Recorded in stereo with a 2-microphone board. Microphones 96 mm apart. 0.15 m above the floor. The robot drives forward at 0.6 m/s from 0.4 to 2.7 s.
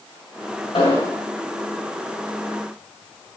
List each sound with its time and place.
0.7 s an explosion: 70° left (ahead or behind), 6 m; by 1.2 s 75° left (ahead or behind), 6 m